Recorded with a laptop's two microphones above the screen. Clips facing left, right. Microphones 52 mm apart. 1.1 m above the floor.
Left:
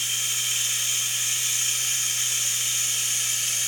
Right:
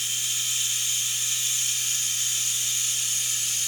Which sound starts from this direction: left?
Running water, at 0.0 s.